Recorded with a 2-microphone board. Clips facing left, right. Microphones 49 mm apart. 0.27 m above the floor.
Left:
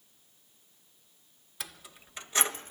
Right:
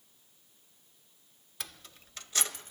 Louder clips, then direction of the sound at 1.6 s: Left 2 dB; 5° left (ahead or behind).